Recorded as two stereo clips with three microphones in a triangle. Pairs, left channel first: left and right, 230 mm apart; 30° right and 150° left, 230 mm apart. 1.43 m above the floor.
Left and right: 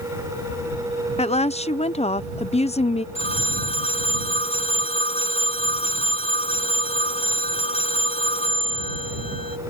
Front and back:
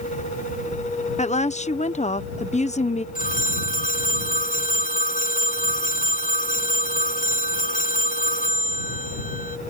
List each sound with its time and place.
1.2 s a woman speaking: 25° left
3.1 s a phone ringing: 25° left